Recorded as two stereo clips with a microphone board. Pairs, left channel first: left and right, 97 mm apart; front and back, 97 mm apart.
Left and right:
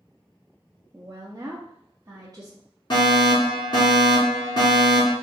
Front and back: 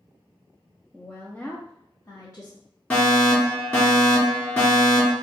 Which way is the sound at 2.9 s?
65° left.